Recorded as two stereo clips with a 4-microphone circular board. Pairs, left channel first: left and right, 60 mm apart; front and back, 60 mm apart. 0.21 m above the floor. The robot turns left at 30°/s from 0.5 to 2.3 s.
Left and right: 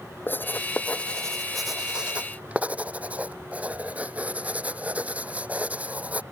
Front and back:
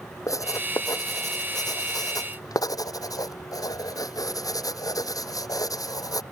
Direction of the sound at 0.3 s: 35° left.